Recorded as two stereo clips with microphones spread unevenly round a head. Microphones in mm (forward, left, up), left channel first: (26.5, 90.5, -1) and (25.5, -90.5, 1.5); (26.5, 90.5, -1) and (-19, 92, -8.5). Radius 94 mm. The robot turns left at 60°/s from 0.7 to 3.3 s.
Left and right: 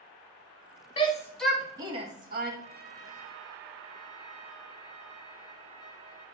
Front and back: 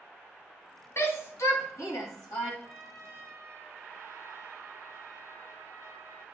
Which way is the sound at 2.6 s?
100° right.